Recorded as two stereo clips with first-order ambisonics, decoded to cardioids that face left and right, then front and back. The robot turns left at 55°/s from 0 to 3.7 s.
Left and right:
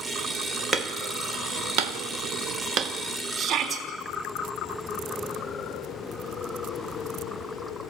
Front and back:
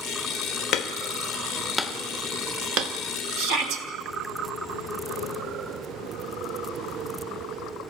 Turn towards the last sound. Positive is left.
turn(degrees=-170)